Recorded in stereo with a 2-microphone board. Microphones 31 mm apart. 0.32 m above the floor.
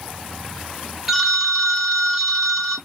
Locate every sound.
1.1 s a phone ringing: 10° right (ahead or behind), 1.4 m